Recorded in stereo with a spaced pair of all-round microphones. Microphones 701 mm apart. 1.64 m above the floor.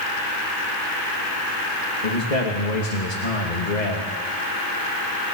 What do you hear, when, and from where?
2.0 s a man speaking: 80° left, 2.5 m